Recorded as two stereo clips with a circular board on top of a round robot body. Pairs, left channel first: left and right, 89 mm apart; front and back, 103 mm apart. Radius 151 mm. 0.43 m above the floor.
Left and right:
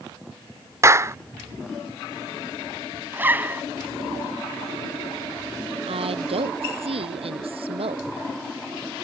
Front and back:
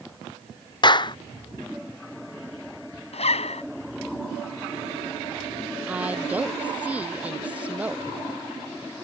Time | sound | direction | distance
0.8 | a clap | 35° right | ?
3.1 | a zipper | 20° right | ?
5.9 | a woman speaking | 105° right | ?